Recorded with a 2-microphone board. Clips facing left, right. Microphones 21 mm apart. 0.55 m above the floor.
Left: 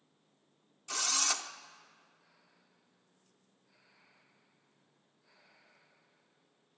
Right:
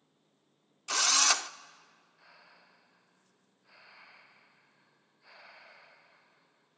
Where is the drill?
40° right (ahead or behind), 0.5 m.